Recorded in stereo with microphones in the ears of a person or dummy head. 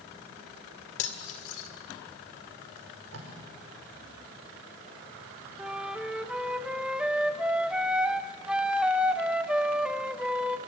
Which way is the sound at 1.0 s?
70° left (ahead or behind).